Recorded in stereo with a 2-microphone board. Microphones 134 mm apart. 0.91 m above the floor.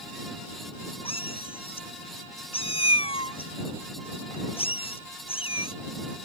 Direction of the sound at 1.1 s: 45° left (ahead or behind).